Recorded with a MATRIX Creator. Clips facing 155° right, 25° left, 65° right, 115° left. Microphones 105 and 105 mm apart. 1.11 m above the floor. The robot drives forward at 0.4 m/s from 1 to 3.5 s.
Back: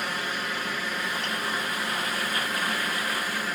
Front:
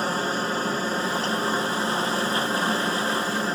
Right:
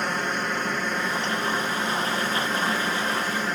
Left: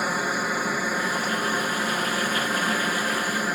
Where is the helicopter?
35° left.